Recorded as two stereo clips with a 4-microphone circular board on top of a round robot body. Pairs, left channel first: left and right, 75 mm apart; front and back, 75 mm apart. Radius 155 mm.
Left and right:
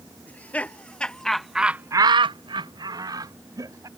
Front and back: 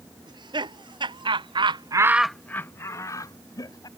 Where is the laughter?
160° left; by 3.9 s 40° right.